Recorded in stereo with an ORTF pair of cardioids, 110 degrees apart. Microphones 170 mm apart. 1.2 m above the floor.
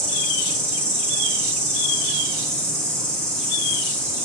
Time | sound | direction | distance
0.0 | an insect | 15° right | 3.5 m